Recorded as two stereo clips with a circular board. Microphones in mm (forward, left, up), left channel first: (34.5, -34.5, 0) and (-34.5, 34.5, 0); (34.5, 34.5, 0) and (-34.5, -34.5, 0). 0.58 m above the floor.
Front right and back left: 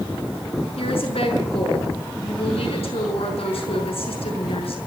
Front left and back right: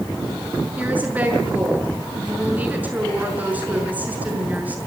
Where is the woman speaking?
60° right, 6 m.